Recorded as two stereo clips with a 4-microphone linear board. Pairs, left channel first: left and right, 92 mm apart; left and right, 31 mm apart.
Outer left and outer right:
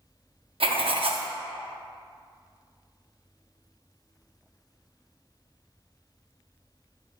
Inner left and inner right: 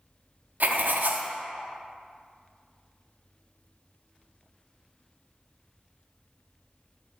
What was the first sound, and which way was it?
Writing, 75° right (ahead or behind).